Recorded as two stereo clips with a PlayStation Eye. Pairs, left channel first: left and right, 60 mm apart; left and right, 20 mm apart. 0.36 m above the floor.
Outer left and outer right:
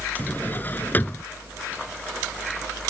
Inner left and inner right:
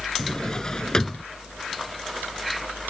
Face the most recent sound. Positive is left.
turn(degrees=30)  # may be behind; listen again after turning